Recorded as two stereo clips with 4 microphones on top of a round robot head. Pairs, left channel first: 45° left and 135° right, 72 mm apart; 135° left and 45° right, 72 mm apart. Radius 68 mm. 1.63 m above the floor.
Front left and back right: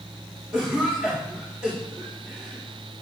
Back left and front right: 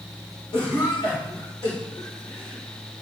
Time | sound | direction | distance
0.5 | a cough | 150° left | 3.5 m